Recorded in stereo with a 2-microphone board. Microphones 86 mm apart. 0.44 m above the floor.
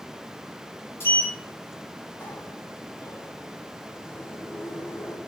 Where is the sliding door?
30° left (ahead or behind), 2 m.